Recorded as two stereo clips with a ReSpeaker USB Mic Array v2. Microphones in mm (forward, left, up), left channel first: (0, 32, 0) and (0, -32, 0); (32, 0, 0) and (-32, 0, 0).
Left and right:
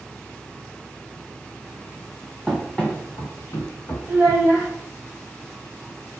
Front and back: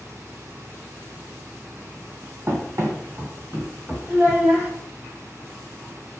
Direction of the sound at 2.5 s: 175° right.